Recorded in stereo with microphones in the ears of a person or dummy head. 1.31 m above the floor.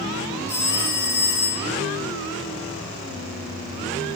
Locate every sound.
0.5 s a phone ringing: 10° right (ahead or behind), 4 m